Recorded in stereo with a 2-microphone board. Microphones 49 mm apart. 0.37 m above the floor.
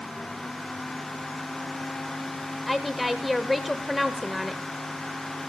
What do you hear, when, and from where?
2.7 s a woman speaking: centre (ahead or behind), 1.0 m